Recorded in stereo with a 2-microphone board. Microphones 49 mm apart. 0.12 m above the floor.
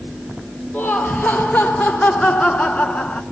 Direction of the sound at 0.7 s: 10° left (ahead or behind).